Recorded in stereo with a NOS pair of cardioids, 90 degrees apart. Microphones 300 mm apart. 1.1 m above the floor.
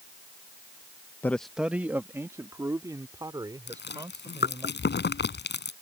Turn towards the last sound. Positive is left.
turn(degrees=35)